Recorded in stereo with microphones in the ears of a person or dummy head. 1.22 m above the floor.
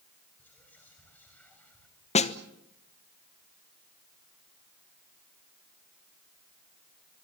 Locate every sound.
0.4 s whispering: 10° left (ahead or behind), 5 m
2.1 s a snare drum: 30° left (ahead or behind), 1.1 m